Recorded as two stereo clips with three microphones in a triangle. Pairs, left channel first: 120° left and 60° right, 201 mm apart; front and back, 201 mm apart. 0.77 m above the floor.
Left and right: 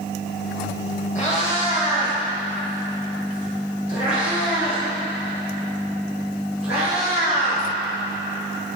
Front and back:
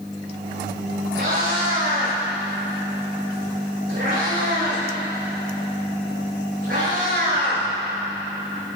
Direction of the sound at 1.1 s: 175° left.